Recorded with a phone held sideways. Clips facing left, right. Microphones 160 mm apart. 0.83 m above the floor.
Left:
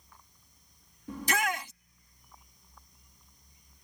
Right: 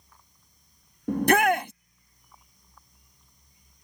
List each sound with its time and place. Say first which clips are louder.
1.1 s a shout: right 11 dB; 60° right (ahead or behind)